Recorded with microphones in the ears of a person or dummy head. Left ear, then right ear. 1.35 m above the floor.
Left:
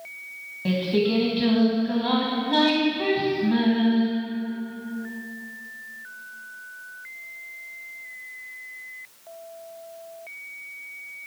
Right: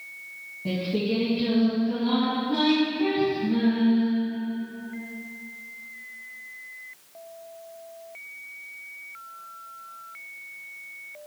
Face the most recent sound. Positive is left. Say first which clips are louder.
# left 4 dB
turn(degrees=60)  # may be behind; listen again after turning